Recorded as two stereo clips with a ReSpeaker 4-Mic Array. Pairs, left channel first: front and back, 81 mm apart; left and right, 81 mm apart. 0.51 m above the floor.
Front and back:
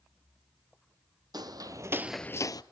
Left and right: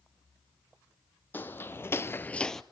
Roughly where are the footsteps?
Behind left.